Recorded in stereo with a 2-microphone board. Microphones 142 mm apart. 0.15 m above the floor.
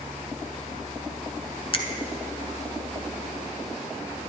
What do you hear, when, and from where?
1.7 s a finger snap: 40° left (ahead or behind), 1.1 m